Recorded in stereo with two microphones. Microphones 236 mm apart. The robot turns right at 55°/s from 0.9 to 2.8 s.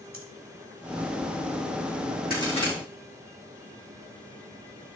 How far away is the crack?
About 5.5 m.